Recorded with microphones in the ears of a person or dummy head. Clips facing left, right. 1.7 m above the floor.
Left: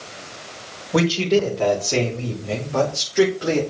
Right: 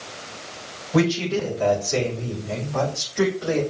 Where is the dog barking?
I don't hear a dog barking.